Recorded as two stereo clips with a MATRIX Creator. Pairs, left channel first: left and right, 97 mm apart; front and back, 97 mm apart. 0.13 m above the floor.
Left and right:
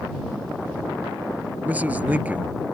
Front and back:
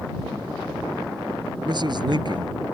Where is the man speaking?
160° right.